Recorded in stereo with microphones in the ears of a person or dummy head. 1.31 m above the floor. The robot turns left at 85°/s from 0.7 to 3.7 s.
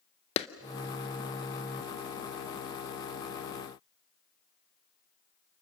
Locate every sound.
0.4 s a clap: 30° left (ahead or behind), 0.6 m